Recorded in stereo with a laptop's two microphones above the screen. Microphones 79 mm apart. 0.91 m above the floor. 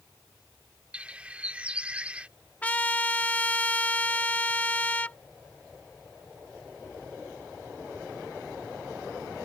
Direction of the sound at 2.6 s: 20° left (ahead or behind).